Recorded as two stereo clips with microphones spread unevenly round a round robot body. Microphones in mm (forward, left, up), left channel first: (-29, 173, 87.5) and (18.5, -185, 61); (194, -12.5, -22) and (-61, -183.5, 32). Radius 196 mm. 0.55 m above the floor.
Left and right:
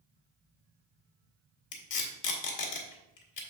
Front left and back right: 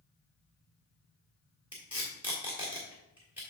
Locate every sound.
1.7 s tape being pulled: 125° left, 1.5 m